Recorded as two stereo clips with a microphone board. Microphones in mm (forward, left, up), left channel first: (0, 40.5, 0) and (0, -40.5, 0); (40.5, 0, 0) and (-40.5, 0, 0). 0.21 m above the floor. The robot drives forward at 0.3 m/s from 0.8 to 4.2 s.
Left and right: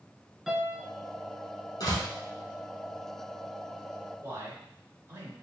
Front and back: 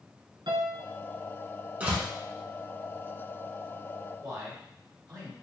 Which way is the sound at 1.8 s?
110° left.